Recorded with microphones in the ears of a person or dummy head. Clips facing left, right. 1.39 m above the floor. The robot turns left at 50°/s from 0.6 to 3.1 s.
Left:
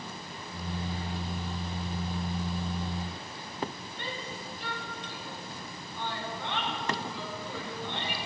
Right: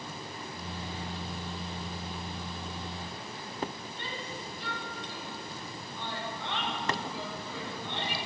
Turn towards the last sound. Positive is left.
turn(degrees=50)  # may be behind; listen again after turning